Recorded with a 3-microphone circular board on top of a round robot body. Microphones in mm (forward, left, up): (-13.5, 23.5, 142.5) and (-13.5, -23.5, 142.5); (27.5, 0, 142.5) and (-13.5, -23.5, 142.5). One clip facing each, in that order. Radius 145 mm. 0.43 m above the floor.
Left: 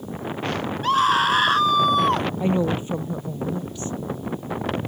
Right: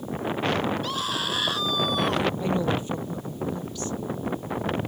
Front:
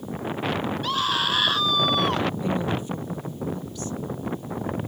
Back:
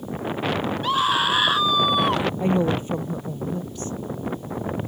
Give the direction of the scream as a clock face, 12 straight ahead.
7 o'clock.